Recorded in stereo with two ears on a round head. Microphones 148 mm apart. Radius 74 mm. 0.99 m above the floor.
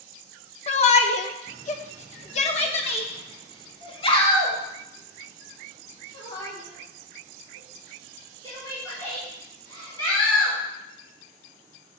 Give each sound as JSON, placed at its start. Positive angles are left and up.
{"t": 0.7, "sound": "a shout", "side_deg": 40, "distance_m": 1.1}